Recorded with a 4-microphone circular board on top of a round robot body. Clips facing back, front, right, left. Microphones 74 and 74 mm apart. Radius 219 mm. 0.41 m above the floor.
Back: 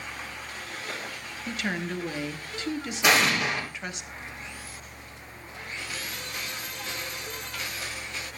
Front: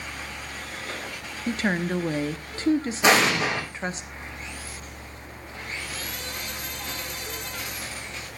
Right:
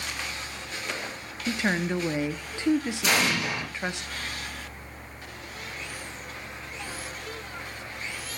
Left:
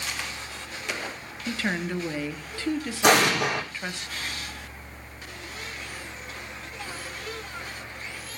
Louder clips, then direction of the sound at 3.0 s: Front 2 dB, left 10 dB; 60° left.